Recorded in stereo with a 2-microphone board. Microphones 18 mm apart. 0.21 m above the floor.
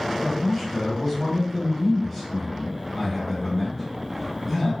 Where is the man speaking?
Centre (ahead or behind), 1.6 m.